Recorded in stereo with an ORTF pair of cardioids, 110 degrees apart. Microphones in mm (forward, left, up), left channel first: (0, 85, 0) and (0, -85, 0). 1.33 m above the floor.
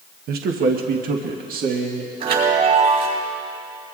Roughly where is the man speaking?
Ahead right.